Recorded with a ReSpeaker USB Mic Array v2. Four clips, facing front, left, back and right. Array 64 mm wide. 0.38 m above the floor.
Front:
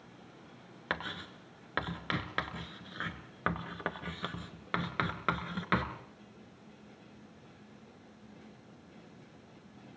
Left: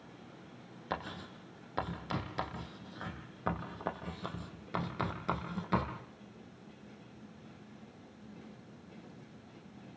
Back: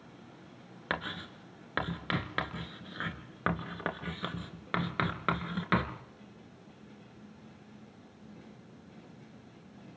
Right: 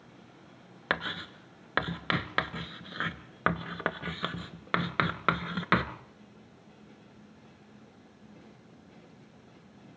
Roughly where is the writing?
Right.